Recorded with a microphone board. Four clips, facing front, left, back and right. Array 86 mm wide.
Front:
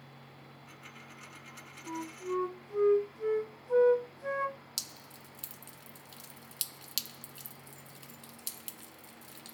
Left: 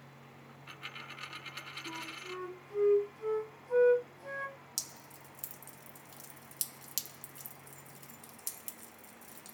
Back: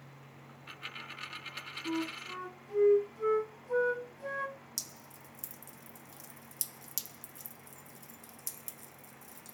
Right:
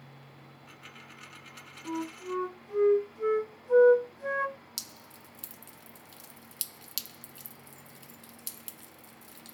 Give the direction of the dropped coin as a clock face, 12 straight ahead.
7 o'clock.